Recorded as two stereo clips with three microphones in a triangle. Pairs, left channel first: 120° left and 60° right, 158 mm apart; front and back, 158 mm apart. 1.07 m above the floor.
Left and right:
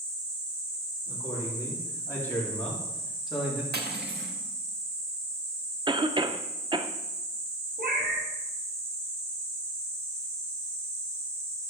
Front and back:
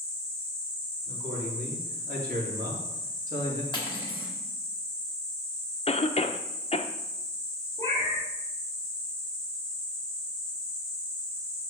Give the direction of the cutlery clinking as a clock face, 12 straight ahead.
2 o'clock.